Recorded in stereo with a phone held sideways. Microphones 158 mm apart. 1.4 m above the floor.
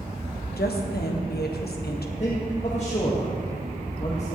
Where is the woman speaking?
80° left, 1.2 m.